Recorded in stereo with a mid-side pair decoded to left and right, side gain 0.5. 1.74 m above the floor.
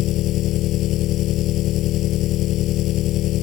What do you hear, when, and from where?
0.0 s an engine running: 70° left